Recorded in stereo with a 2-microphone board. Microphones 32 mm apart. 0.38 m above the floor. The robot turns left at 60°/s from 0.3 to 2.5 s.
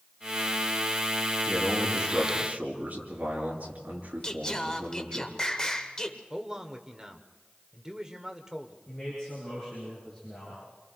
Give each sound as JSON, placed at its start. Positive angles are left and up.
{"t": 1.5, "sound": "a man speaking", "azimuth_deg": 15, "distance_m": 6.0}
{"t": 4.2, "sound": "singing", "side_deg": 25, "distance_m": 1.4}
{"t": 6.3, "sound": "a man speaking", "side_deg": -15, "distance_m": 1.3}
{"t": 8.9, "sound": "a man speaking", "side_deg": 20, "distance_m": 7.5}